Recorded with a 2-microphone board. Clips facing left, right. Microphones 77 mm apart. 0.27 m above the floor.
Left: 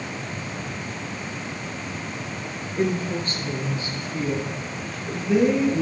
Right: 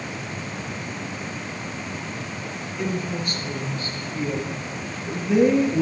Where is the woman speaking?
40° left (ahead or behind), 4 m; by 5.8 s 10° right (ahead or behind), 5.5 m.